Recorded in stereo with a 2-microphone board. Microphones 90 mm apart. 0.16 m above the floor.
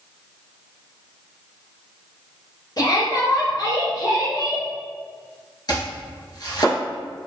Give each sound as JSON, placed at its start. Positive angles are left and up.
{"t": 2.8, "sound": "a shout", "side_deg": 50, "distance_m": 2.0}
{"t": 5.7, "sound": "chopping", "side_deg": 50, "distance_m": 1.5}